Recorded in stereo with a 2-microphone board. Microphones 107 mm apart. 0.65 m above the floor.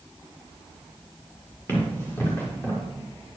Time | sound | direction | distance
1.7 | running footsteps | 20° left (ahead or behind) | 5.5 m